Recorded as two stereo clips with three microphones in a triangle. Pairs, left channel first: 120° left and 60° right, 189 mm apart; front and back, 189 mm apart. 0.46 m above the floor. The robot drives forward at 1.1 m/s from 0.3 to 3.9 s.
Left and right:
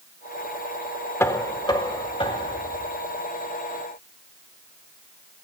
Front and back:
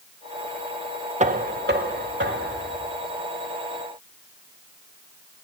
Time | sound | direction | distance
1.2 | knocking | 170° right | 0.6 m